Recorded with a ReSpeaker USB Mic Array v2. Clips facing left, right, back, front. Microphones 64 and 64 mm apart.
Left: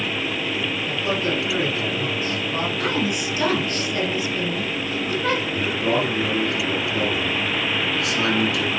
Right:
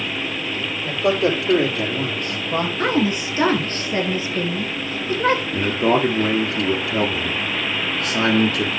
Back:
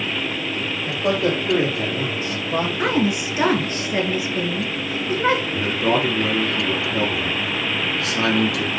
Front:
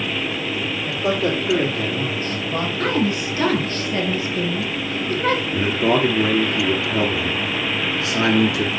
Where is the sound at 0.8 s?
85° right, 3.5 m; by 2.7 s 110° right, 3 m.